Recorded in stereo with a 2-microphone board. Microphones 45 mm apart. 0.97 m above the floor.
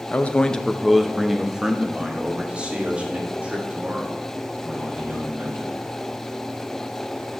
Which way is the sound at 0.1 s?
40° left (ahead or behind).